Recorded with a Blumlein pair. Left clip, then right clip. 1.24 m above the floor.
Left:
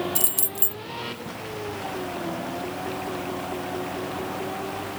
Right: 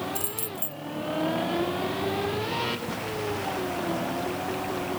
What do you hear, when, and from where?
0.1 s keys jangling: 65° left